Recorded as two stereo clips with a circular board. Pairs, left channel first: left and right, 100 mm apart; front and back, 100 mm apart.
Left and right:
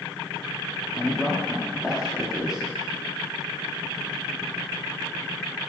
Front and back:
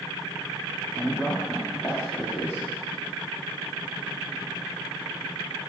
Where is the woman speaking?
15° right, 0.6 m.